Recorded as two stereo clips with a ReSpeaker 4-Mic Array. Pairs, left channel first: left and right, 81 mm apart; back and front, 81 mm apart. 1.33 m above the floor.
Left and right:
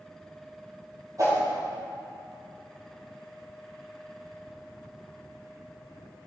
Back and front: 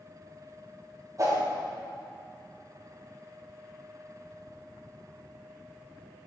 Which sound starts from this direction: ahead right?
A whoosh, at 1.2 s.